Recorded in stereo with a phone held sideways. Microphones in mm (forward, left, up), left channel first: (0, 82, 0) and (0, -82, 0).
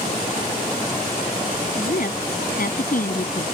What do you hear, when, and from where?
1.8 s a woman speaking: 60° left (ahead or behind)